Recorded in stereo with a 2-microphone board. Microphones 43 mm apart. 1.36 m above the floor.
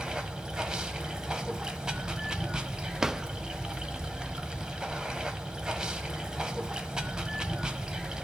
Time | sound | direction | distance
0.0 | running water | 20° right (ahead or behind) | 1.2 m
3.0 | a drawer | 15° right (ahead or behind) | 0.6 m